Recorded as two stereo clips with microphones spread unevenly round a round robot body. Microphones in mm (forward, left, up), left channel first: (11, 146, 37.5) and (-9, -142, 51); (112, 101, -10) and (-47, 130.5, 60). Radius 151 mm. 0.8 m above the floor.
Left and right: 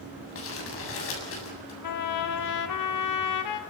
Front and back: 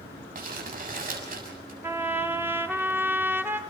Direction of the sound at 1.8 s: 85° left.